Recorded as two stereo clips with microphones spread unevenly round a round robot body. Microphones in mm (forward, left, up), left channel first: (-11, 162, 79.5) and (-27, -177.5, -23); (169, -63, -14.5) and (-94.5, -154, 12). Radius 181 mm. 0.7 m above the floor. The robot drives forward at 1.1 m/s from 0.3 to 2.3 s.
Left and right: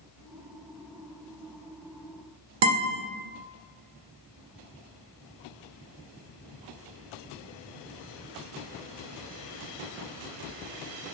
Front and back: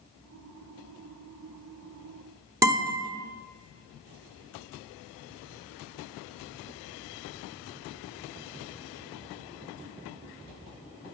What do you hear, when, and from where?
2.6 s a guitar: 80° right, 1.0 m